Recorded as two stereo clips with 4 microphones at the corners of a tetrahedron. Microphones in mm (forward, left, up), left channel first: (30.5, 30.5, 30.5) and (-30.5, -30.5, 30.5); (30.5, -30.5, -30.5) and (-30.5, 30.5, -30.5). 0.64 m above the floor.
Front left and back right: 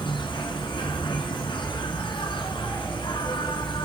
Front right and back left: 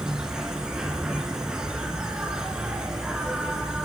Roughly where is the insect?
Ahead left.